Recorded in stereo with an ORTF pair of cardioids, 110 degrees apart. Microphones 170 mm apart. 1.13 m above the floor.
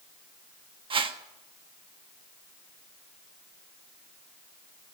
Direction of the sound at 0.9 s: 30° right.